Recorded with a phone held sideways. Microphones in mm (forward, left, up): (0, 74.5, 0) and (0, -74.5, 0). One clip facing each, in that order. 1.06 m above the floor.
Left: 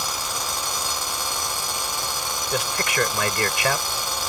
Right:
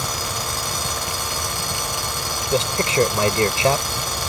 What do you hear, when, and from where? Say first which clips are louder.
0.0 s a fan: right 3 dB; 65° right (ahead or behind)
2.5 s a man speaking: right 7 dB; 30° right (ahead or behind)